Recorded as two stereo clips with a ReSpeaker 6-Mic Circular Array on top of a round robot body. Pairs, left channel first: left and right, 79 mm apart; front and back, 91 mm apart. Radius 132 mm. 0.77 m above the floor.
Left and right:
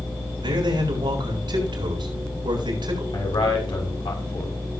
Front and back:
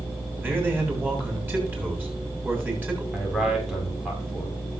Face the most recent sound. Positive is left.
turn(degrees=95)